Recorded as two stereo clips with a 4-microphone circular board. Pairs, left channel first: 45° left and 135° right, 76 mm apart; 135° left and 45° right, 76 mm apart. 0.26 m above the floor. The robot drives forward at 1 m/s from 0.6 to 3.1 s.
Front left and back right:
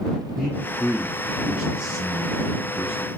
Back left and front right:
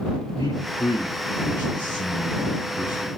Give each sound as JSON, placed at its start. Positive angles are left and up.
{"t": 0.4, "sound": "a man speaking", "azimuth_deg": 125, "distance_m": 4.0}